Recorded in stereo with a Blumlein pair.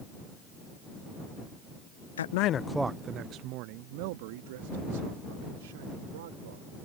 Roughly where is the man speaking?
Ahead left.